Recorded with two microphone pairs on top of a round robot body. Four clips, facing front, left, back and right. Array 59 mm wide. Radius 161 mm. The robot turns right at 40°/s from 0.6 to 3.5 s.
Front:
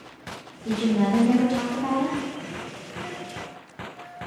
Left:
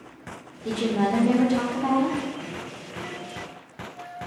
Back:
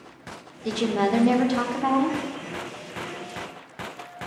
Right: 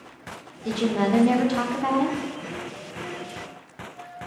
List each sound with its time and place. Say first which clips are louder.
0.7 s a woman speaking: right 1 dB, even; 170° right, 1.1 m; by 2.2 s 110° right, 1.1 m